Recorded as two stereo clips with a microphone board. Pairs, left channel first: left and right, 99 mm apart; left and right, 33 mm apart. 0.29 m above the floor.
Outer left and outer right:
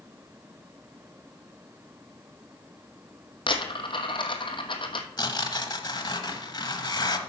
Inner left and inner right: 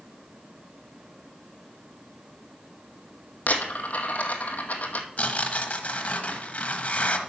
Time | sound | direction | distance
3.5 | a dropped coin | 55° left (ahead or behind) | 1.0 m
5.2 | tearing paper | 45° left (ahead or behind) | 1.0 m